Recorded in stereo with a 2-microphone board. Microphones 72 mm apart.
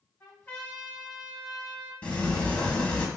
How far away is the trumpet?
About 1.5 m.